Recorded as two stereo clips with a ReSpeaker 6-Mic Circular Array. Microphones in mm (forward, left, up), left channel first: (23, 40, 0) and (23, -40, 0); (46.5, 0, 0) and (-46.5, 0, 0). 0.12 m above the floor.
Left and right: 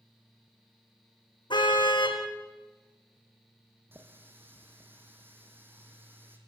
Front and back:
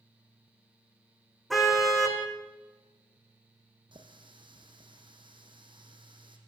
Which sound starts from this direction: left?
A car horn, at 1.5 s.